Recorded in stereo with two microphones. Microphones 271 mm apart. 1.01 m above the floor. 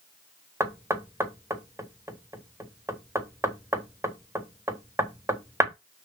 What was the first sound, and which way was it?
Knocking, 10° right (ahead or behind).